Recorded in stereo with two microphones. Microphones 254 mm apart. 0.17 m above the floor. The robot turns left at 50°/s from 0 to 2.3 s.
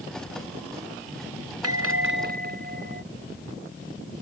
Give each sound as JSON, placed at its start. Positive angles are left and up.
{"t": 1.6, "sound": "a bell", "azimuth_deg": -110}